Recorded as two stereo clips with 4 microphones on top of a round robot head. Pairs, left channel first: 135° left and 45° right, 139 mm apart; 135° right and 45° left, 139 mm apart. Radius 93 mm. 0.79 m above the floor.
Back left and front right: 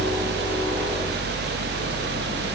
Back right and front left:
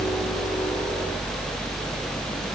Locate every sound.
Only background noise.